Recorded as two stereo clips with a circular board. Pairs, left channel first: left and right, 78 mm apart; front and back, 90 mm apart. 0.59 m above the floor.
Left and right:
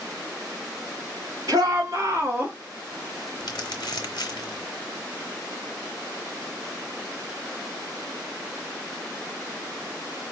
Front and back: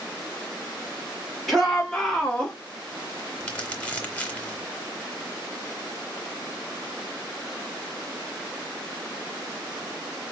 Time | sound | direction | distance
1.5 | a shout | 90° right | 1.5 m
3.4 | crumpling | 75° left | 1.0 m